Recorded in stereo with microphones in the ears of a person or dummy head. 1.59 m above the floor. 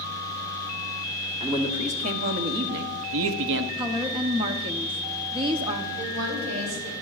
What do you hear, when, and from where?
1.4 s a man speaking: 30° right (ahead or behind), 1.3 m; by 3.7 s 65° right (ahead or behind), 0.9 m
3.8 s a woman speaking: 30° right (ahead or behind), 0.9 m
6.0 s a woman speaking: 80° right, 3 m